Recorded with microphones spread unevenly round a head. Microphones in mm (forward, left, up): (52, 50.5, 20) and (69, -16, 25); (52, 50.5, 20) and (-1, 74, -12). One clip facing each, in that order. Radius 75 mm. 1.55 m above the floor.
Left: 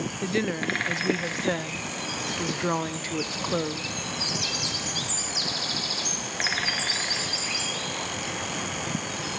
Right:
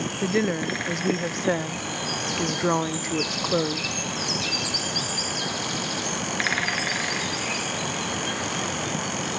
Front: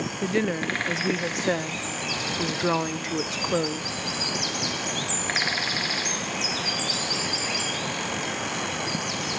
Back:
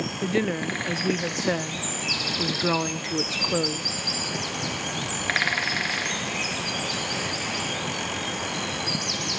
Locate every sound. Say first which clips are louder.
0.2 s a woman speaking: right 3 dB, even; 25° right, 0.5 m